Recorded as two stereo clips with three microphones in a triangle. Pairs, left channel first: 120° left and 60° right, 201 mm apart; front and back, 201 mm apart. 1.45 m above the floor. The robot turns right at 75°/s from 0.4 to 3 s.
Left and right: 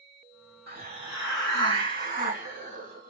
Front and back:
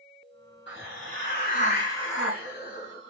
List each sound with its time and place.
0.7 s a hiss: 25° right, 4 m; by 3.1 s 155° left, 4 m